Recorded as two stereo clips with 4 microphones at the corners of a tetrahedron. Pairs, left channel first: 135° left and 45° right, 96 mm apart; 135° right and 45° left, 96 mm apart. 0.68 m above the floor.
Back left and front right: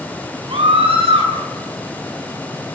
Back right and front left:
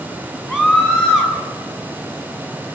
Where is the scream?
40° right, 8 m.